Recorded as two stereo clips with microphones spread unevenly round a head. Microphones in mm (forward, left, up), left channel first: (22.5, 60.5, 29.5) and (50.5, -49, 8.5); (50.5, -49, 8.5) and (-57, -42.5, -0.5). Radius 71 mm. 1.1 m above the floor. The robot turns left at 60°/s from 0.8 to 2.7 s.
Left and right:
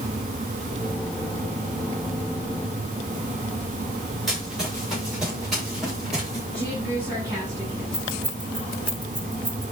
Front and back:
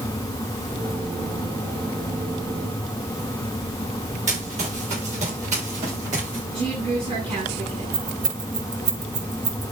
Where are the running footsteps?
165° right, 8.5 m.